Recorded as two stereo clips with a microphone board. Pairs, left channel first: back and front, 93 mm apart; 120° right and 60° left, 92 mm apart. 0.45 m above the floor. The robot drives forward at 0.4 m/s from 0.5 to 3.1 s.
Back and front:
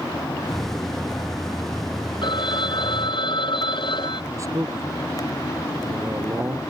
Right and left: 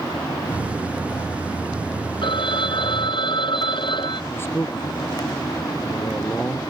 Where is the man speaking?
55° right.